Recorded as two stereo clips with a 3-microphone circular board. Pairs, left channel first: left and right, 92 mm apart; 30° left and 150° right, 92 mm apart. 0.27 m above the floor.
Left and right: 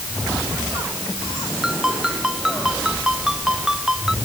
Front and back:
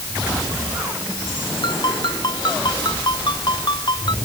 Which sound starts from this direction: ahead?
A ringtone, at 1.6 s.